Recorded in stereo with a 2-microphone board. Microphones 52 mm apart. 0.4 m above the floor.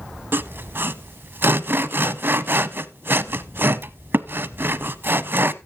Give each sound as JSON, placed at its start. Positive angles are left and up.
{"t": 0.3, "sound": "sawing", "side_deg": -45, "distance_m": 0.6}